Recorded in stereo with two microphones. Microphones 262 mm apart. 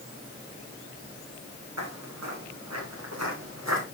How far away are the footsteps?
About 6 m.